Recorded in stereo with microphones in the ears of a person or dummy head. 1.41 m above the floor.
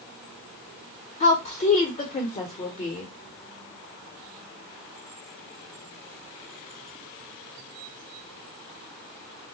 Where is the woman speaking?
35° left (ahead or behind), 0.9 m.